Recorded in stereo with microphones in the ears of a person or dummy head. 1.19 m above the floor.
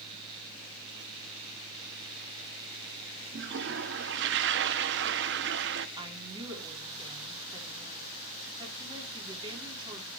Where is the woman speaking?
25° right (ahead or behind), 4 m.